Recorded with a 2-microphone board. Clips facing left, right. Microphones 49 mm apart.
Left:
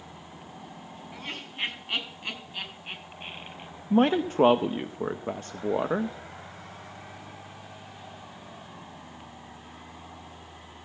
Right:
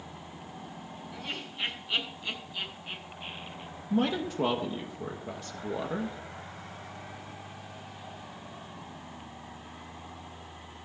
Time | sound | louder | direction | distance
1.1 | laughter | left 1 dB | 45° left (ahead or behind) | 7 m
3.9 | a man speaking | left 6 dB | 40° left (ahead or behind) | 0.6 m